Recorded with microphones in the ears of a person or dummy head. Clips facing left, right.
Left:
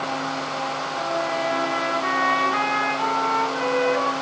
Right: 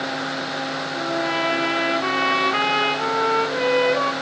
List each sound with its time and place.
0.9 s a trumpet: 50° right (ahead or behind), 1.8 m